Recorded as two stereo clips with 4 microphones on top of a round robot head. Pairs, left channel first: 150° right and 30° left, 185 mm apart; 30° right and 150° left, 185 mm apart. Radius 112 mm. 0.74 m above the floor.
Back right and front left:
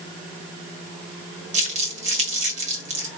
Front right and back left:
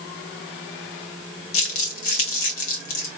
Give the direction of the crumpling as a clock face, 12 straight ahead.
1 o'clock.